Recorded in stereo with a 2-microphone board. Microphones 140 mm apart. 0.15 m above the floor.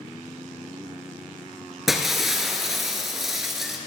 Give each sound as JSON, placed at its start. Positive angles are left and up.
{"t": 1.9, "sound": "breaking glass", "side_deg": 0, "distance_m": 1.6}